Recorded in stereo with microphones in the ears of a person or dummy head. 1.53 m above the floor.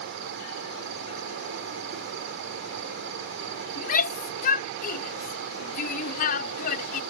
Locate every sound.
0.0 s an insect: 70° right (ahead or behind)
3.8 s a shout: 45° left (ahead or behind)